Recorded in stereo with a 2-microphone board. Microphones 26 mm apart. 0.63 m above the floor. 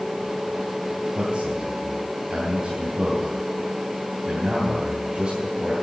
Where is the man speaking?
30° right (ahead or behind), 3.5 m.